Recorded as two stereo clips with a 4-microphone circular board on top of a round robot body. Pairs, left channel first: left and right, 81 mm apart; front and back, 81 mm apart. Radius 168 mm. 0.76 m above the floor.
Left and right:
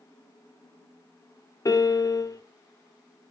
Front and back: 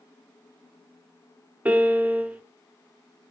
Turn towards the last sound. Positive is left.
turn(degrees=110)